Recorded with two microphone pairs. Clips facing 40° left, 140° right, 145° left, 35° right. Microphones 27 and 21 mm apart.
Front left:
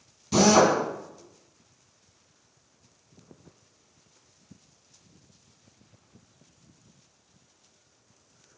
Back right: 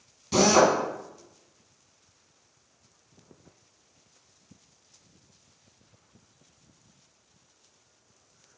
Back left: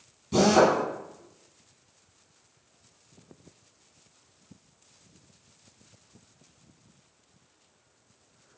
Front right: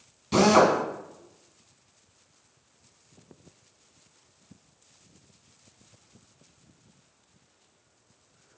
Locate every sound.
0.3 s a drill: 70° right, 2.5 m